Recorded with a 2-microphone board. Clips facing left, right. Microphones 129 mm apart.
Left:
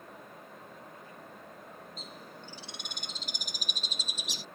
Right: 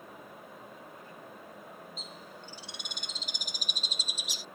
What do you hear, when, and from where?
2.0 s a bird: 55° left (ahead or behind)